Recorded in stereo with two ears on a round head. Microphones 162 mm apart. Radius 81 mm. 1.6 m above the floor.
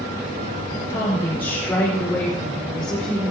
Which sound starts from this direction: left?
A woman speaking, at 0.9 s.